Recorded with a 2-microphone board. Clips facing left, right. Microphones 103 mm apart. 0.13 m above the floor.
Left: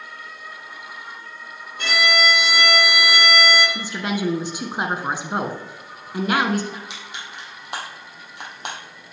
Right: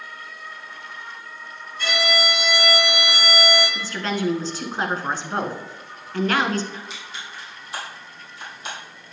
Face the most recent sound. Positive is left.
turn(degrees=65)  # may be behind; listen again after turning